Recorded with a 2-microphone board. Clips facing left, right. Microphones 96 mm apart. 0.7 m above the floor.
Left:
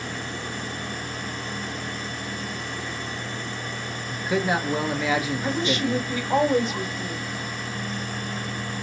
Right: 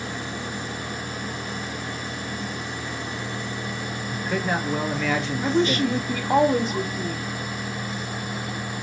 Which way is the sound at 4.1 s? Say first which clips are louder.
Left 2 dB; 5° left (ahead or behind).